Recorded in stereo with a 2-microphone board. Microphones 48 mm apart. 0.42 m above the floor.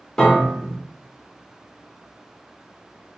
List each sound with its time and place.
0.2 s a piano: 15° left (ahead or behind), 1.0 m